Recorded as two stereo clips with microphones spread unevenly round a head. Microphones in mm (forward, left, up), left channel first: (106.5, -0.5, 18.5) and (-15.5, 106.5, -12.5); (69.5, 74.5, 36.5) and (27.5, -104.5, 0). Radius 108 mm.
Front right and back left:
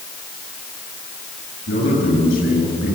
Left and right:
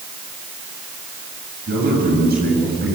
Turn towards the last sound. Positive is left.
turn(degrees=-70)